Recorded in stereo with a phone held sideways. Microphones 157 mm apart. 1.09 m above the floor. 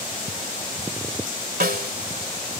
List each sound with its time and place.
1.6 s a snare drum: 80° right